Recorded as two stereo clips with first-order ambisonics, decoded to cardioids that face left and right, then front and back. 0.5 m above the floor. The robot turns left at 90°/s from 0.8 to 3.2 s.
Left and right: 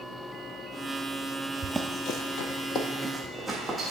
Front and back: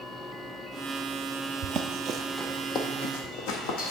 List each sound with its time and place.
1.6 s running footsteps: 145° right, 0.6 m; by 3.9 s straight ahead, 1.9 m